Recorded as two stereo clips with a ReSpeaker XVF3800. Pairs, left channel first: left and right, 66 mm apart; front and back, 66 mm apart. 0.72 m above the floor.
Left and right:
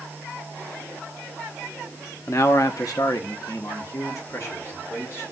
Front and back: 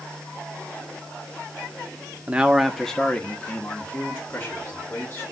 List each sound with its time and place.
2.3 s a man speaking: 120° left, 0.7 m; by 5.2 s 50° left, 2.5 m